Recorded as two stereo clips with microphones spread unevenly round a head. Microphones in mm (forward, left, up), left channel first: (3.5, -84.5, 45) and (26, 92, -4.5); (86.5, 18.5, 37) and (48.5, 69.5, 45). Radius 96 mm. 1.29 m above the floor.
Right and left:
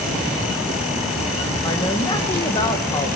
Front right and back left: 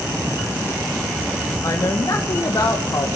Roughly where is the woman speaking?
Ahead right.